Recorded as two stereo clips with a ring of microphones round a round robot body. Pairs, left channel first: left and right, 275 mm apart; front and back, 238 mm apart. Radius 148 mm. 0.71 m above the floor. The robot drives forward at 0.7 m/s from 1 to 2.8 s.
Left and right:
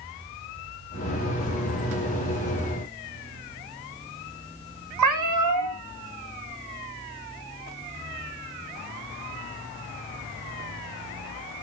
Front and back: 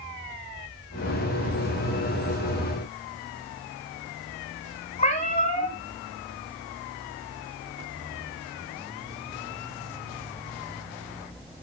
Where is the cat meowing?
70° right, 1.0 m.